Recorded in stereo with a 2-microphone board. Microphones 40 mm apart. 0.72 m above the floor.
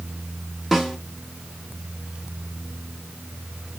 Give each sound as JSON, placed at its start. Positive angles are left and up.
{"t": 0.7, "sound": "a snare drum", "side_deg": -5, "distance_m": 1.0}